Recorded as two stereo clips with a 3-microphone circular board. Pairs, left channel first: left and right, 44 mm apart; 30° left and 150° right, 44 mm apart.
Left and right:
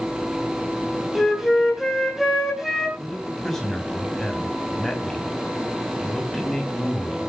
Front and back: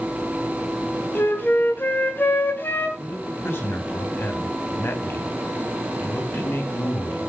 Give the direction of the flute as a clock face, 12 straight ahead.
12 o'clock.